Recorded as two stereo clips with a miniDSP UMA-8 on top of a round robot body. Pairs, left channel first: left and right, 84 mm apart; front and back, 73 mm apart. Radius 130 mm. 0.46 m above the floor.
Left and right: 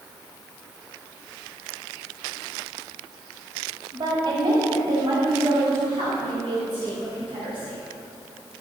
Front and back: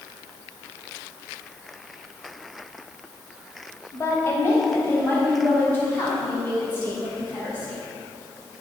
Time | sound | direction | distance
3.9 | a woman speaking | 50° right | 3 m